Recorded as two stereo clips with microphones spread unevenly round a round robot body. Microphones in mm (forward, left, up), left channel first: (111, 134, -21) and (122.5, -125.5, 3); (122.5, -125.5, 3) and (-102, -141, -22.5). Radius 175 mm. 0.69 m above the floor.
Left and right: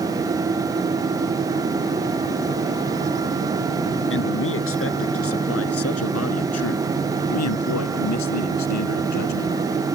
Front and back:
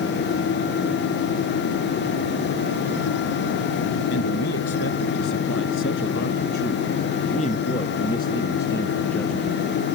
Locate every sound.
4.1 s a man speaking: 55° left; by 9.6 s 95° left